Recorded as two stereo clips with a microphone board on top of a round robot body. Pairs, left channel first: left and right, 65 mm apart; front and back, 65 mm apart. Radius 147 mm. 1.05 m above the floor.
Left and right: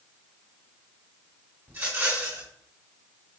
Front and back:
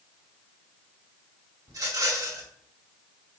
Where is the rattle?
150° right, 3.5 m.